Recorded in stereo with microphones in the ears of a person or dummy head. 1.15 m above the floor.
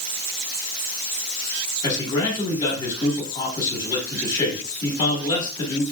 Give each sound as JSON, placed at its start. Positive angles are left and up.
{"t": 1.8, "sound": "a man speaking", "side_deg": 20, "distance_m": 1.8}